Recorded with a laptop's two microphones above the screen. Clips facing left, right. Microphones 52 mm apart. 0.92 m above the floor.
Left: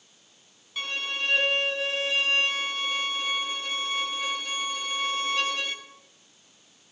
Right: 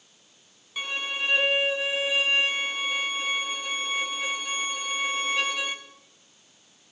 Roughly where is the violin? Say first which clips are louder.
Right 1 dB; centre.